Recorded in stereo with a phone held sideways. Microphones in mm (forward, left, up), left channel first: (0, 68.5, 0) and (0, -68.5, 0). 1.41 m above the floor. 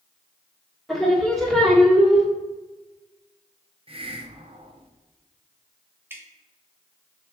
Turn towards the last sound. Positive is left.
turn(degrees=-15)  # may be behind; listen again after turning